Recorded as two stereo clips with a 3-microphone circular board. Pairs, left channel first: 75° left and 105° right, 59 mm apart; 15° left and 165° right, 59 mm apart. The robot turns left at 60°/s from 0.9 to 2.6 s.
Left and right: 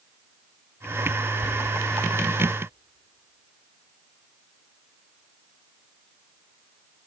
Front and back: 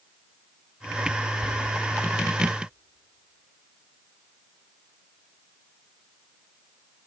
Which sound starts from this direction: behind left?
Whispering, at 1.4 s.